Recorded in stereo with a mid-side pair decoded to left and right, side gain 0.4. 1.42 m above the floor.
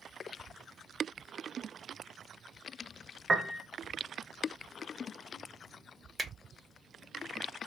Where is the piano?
35° right, 0.5 m.